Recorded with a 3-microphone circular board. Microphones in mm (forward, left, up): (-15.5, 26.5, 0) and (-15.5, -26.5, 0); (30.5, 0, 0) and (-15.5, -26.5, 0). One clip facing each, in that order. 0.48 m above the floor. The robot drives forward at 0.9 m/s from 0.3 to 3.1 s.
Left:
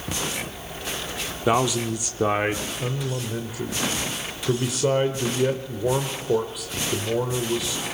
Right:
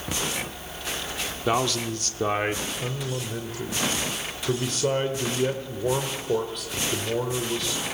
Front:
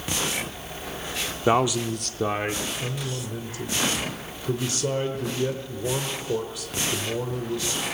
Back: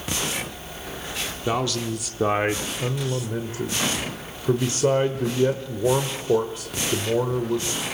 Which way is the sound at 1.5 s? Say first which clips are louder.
Left 3 dB, front 4 dB; 25° left.